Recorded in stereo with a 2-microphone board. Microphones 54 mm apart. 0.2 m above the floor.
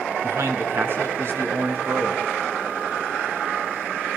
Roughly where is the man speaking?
Right.